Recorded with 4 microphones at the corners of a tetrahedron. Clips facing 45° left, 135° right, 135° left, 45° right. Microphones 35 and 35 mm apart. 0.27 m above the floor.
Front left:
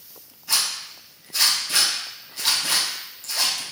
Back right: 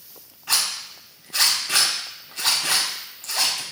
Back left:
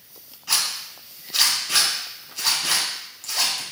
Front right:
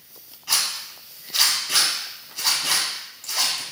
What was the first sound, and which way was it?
A zipper, 125° right.